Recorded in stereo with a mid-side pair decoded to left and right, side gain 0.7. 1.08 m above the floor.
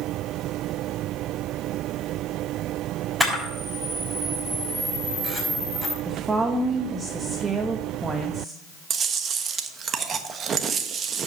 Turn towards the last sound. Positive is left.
turn(degrees=-35)